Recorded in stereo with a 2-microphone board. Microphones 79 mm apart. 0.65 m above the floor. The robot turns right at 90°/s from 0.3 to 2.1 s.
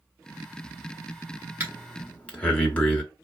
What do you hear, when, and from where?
1.6 s breathing: 25° right (ahead or behind), 1.4 m; by 3.0 s 15° left (ahead or behind), 1.4 m